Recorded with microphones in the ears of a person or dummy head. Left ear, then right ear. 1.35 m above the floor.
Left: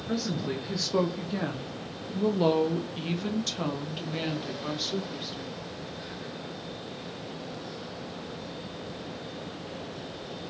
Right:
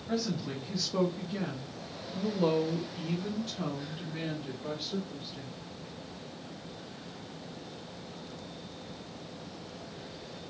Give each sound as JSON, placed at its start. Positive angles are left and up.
{"t": 0.1, "sound": "a woman speaking", "side_deg": 5, "distance_m": 1.3}